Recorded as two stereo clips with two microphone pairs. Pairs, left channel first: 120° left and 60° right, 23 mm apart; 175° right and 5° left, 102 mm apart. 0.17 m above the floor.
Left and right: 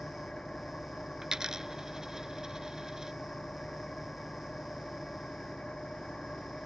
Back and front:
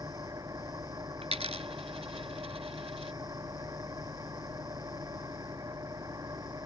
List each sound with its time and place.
0.0 s an engine running: 60° left
1.2 s a dropped coin: 5° left